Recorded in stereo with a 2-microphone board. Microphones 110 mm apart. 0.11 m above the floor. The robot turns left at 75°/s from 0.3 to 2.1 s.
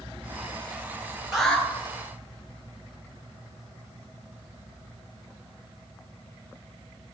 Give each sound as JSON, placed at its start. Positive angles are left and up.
{"t": 1.3, "sound": "an alarm", "side_deg": -5, "distance_m": 2.5}